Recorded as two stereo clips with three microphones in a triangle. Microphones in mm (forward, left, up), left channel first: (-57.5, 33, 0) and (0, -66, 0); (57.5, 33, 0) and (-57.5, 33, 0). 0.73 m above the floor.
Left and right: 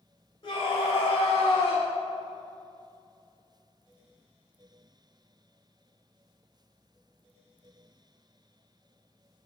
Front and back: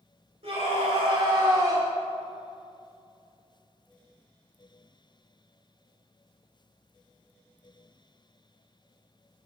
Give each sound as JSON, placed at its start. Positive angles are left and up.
{"t": 0.4, "sound": "a scream", "azimuth_deg": 160, "distance_m": 2.5}